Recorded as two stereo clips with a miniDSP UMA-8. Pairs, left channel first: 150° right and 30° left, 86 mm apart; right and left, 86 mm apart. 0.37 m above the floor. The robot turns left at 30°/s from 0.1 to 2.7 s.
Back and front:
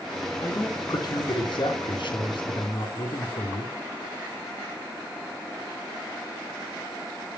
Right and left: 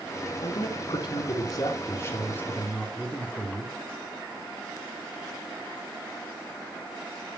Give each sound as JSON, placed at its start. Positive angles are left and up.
{"t": 0.4, "sound": "a man speaking", "azimuth_deg": -100, "distance_m": 2.5}